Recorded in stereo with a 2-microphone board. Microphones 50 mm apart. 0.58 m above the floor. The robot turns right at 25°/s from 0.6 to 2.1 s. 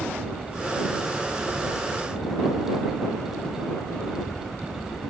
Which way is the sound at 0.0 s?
25° right.